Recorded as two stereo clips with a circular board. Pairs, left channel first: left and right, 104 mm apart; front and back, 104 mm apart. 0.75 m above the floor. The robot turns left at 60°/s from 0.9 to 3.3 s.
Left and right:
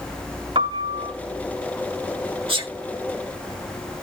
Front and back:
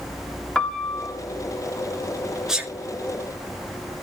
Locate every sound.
0.6 s a piano: 80° right, 1.8 m; by 1.1 s 95° right, 1.8 m
2.5 s a sneeze: 95° right, 1.5 m; by 2.7 s 110° right, 1.5 m